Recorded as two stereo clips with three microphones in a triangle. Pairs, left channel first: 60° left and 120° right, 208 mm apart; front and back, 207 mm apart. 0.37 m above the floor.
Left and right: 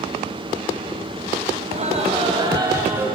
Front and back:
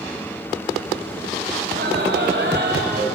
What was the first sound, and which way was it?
Laughter, 165° right.